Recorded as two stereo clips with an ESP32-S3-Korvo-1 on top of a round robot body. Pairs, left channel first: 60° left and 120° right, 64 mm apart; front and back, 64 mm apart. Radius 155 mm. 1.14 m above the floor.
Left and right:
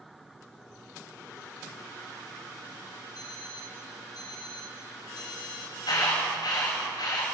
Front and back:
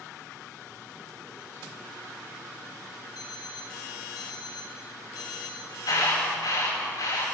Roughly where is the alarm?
Ahead left.